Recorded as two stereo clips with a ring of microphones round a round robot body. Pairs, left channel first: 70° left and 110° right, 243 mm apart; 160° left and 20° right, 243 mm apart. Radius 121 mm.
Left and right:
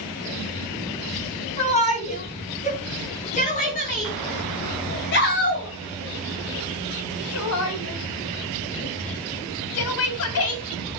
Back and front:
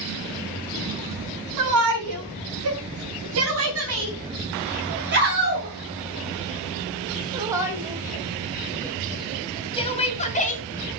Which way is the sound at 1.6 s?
Straight ahead.